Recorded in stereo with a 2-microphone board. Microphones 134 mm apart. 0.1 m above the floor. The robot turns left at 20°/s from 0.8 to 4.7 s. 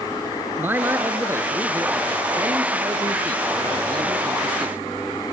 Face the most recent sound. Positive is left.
turn(degrees=-105)